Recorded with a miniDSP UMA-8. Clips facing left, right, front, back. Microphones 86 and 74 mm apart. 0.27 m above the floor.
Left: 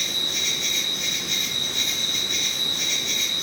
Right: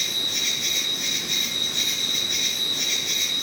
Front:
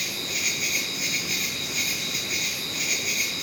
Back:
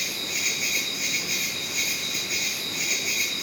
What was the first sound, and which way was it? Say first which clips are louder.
An insect: left 1 dB, even; 100° right.